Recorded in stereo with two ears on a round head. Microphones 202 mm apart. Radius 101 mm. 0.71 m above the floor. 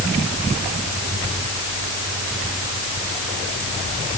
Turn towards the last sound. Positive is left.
No sound to turn to.